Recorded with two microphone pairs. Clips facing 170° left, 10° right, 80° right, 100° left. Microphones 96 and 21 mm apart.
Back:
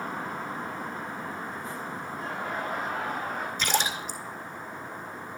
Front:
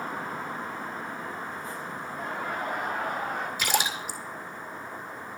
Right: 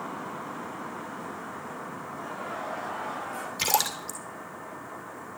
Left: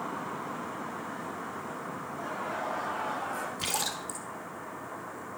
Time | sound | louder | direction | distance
2.1 | laughter | front 1 dB, left 1 dB | 20° left | 6 m
3.6 | a splash | back 2 dB, right 10 dB | 90° right | 2 m